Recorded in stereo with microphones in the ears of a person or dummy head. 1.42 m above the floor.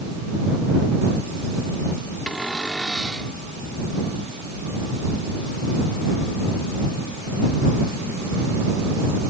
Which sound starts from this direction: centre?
A cupboard door, at 2.3 s.